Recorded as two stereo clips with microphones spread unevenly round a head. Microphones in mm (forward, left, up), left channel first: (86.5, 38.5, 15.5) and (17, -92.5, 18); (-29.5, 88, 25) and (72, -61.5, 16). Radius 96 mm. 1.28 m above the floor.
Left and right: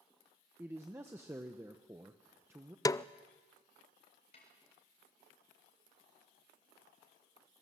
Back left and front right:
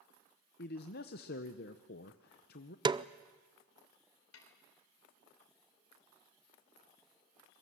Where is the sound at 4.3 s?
120° left, 4 m.